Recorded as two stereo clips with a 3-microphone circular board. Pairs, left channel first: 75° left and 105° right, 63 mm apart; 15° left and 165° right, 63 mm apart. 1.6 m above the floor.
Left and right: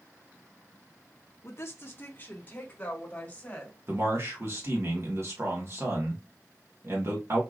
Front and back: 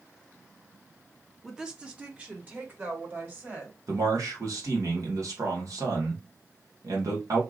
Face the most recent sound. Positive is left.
turn(degrees=-145)